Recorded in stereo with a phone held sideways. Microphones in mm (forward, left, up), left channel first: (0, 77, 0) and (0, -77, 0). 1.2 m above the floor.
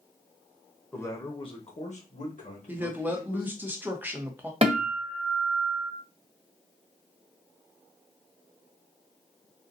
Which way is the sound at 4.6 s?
40° right (ahead or behind).